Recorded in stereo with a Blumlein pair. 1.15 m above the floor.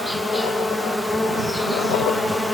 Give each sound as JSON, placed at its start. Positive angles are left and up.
{"t": 0.0, "sound": "an insect", "azimuth_deg": 5}